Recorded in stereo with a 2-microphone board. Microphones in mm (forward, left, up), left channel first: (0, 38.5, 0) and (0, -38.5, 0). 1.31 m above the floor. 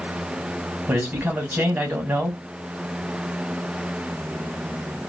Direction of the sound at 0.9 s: 35° right (ahead or behind).